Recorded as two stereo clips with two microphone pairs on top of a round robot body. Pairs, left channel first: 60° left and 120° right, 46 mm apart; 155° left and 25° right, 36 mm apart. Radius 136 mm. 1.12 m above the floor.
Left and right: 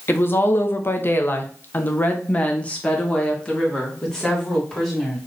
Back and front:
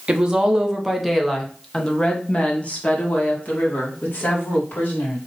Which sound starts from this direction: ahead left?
A woman speaking, at 0.1 s.